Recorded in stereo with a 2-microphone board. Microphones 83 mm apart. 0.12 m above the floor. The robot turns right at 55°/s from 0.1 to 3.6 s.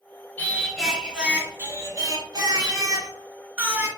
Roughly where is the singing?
Behind left.